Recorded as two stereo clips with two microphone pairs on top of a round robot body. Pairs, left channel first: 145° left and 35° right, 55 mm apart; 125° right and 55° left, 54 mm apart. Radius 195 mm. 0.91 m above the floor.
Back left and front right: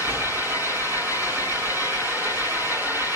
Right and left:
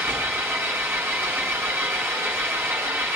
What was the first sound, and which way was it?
An engine running, 5° left.